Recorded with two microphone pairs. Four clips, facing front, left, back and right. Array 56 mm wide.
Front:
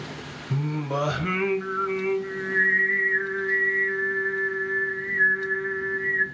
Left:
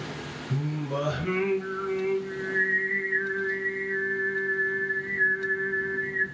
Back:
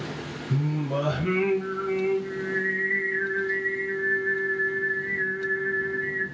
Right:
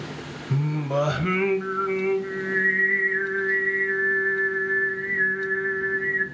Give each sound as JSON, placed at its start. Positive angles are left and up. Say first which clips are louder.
{"t": 0.5, "sound": "singing", "louder": "right 5 dB, even", "azimuth_deg": -65, "distance_m": 0.7}